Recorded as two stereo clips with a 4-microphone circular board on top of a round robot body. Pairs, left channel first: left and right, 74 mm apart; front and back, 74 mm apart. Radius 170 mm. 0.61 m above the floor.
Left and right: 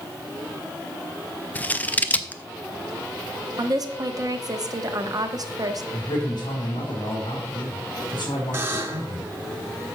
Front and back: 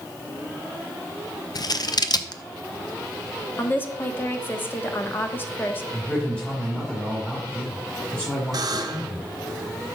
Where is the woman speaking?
60° right, 1.1 m.